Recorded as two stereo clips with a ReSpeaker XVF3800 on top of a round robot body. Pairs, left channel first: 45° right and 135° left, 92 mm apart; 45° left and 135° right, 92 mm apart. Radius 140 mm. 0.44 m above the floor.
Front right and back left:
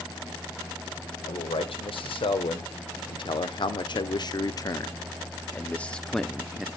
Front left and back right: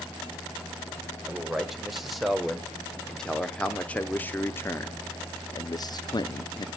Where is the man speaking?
50° right, 2.5 m; by 6.7 s 55° left, 1.3 m.